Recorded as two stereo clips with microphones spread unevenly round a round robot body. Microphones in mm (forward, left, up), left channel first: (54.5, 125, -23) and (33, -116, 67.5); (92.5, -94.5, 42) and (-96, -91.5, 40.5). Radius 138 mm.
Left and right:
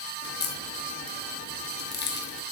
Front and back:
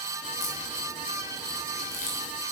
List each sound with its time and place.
0.2 s a crack: 55° left, 1.9 m